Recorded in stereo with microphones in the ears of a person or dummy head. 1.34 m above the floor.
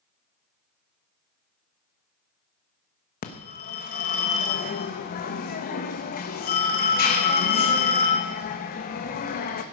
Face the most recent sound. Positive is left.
turn(degrees=50)  # may be behind; listen again after turning